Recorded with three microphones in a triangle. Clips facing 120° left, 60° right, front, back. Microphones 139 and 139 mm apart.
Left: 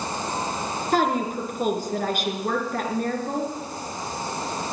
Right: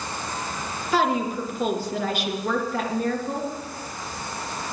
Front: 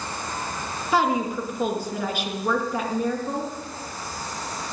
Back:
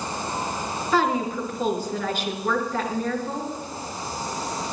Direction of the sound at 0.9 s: 80° left.